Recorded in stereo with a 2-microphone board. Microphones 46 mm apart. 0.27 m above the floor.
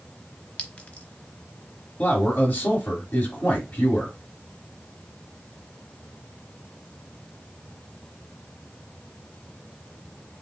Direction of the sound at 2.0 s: 50° left (ahead or behind).